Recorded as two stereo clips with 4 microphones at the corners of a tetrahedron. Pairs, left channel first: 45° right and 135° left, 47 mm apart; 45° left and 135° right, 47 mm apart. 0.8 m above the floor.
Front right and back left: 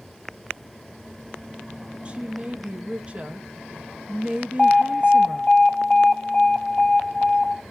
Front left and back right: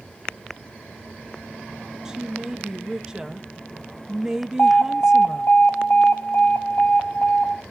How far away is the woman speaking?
About 0.8 m.